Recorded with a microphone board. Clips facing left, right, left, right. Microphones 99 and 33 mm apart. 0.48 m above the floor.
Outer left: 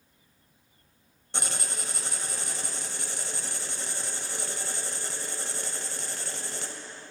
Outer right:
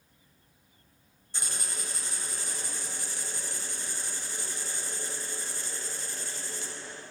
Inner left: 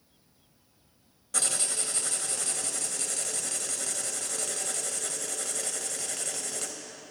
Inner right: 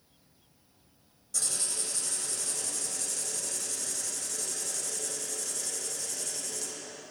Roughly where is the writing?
Left.